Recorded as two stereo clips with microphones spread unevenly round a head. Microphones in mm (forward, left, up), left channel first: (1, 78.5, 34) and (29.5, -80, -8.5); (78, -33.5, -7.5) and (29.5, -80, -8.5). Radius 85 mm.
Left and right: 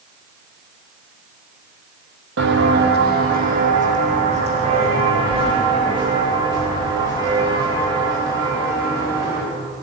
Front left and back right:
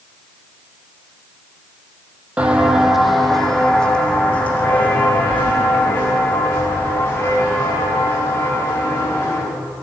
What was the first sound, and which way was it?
Footsteps, 65° right.